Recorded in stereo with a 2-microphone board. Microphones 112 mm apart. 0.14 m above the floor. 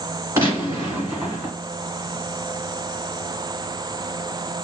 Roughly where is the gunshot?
Right.